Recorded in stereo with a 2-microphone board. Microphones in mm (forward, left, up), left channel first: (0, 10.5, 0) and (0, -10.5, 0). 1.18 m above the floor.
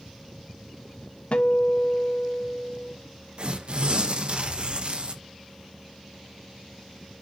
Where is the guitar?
60° left (ahead or behind), 1.2 m.